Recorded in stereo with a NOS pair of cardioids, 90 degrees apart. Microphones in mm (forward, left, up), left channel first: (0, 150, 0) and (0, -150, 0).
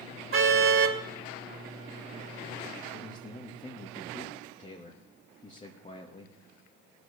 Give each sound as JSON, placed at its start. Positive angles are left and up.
{"t": 0.3, "sound": "a car horn", "azimuth_deg": -45, "distance_m": 2.5}
{"t": 2.9, "sound": "a man speaking", "azimuth_deg": 25, "distance_m": 2.0}